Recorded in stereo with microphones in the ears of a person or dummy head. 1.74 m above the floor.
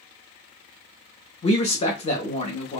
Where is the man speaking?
30° left (ahead or behind), 0.6 m.